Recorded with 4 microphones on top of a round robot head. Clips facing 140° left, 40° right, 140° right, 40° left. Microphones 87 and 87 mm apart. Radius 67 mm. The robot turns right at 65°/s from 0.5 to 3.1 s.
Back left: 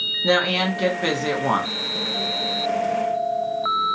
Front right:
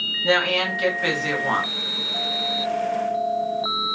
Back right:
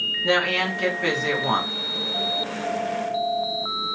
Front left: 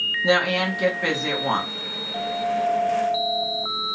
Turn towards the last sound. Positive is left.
turn(degrees=-100)